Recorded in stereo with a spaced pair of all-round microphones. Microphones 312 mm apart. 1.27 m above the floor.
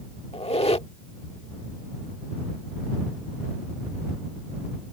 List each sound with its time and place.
0.3 s a squeak: 20° left (ahead or behind)